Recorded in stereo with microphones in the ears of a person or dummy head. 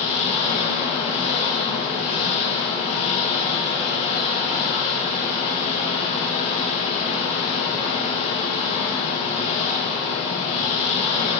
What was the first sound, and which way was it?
An engine running, 30° left (ahead or behind).